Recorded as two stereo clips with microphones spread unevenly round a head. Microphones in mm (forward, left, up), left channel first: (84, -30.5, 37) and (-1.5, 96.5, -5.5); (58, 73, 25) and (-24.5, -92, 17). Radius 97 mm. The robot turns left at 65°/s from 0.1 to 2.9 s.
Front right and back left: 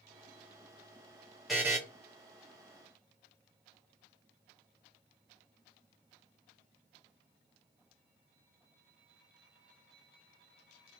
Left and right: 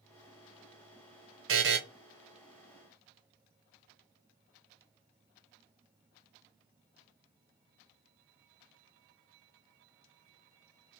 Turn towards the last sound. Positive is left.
turn(degrees=130)